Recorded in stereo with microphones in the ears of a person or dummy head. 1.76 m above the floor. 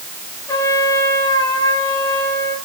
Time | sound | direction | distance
0.5 | a trumpet | 20° left (ahead or behind) | 5 m